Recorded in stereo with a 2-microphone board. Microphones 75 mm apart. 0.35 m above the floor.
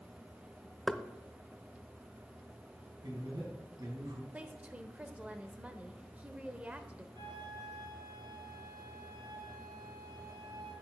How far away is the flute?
About 5 m.